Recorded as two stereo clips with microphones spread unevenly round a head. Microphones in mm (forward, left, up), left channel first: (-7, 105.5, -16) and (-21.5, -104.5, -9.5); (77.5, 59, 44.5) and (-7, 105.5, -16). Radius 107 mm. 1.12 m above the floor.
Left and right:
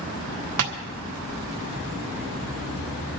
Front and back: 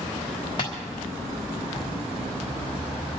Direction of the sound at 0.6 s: 100° right.